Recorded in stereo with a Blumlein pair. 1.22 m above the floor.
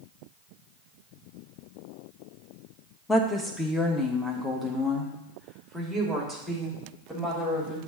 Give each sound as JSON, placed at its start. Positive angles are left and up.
{"t": 3.1, "sound": "a woman speaking", "azimuth_deg": 10, "distance_m": 1.2}